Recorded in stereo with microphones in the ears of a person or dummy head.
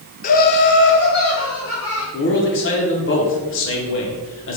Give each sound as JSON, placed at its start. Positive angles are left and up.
{"t": 0.2, "sound": "laughter", "side_deg": 40, "distance_m": 0.7}
{"t": 2.1, "sound": "a man speaking", "side_deg": 60, "distance_m": 1.0}